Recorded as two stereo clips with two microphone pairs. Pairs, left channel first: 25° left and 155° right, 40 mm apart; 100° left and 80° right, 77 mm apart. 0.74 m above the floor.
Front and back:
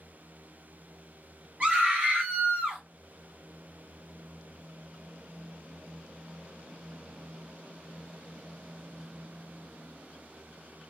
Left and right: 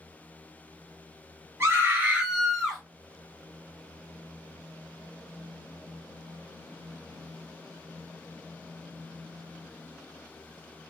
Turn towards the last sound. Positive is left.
turn(degrees=180)